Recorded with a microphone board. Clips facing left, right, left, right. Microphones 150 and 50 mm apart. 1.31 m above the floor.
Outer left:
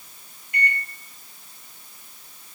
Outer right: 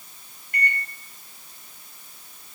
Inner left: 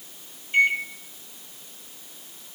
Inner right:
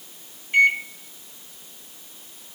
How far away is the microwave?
About 1.6 m.